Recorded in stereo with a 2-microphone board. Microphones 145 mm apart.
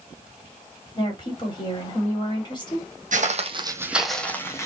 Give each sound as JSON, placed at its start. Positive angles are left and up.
{"t": 0.9, "sound": "a woman speaking", "side_deg": 30, "distance_m": 2.5}
{"t": 3.1, "sound": "footsteps", "side_deg": -60, "distance_m": 1.0}